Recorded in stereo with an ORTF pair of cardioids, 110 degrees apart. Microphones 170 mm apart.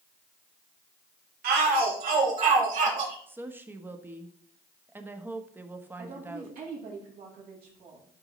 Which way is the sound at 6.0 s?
60° right.